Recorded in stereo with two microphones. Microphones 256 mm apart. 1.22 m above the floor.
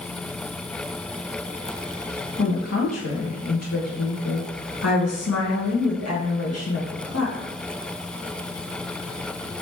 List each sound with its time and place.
2.4 s a woman speaking: 75° left (ahead or behind), 1.3 m